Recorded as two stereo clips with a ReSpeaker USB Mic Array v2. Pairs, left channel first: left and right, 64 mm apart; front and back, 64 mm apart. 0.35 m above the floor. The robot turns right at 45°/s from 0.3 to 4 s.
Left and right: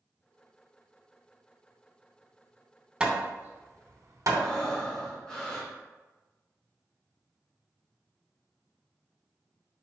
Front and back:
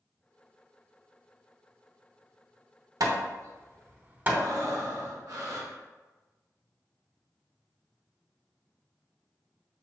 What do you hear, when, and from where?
3.0 s hammering: 170° right, 0.9 m; by 4.5 s 125° right, 0.9 m
4.3 s breathing: 170° left, 1.6 m